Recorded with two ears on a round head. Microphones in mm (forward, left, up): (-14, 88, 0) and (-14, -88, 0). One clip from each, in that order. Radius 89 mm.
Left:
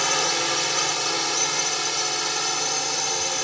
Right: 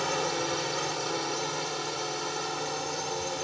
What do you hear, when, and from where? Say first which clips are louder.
0.0 s a drone: left 7 dB; 55° left (ahead or behind)